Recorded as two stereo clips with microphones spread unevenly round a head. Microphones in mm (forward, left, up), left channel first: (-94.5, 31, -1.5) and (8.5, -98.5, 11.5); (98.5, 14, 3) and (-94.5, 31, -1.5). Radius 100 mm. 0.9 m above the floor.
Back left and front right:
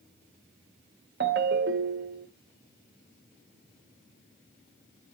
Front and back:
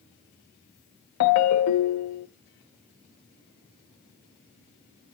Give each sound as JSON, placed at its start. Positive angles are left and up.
{"t": 1.2, "sound": "a ringtone", "azimuth_deg": -10, "distance_m": 0.6}